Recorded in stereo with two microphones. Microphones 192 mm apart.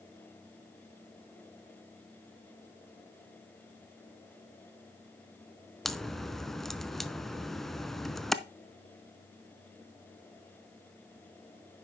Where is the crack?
Centre (ahead or behind), 0.5 m.